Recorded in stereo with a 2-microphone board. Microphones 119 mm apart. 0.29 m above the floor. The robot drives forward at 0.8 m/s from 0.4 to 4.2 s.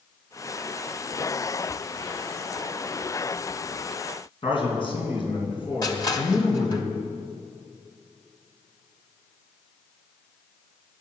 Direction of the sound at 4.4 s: 45° left (ahead or behind).